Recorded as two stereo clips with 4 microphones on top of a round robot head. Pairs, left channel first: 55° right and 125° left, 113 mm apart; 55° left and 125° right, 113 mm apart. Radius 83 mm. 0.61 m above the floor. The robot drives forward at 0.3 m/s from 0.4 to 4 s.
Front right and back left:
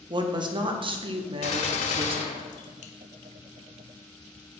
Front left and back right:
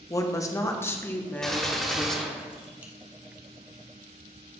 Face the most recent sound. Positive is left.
turn(degrees=-85)